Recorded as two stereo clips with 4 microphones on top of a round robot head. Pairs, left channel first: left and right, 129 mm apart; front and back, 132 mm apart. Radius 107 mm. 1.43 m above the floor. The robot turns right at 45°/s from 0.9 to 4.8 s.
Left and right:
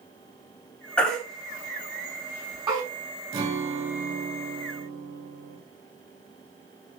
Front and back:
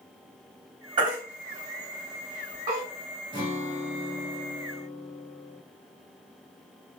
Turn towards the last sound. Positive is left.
turn(degrees=-50)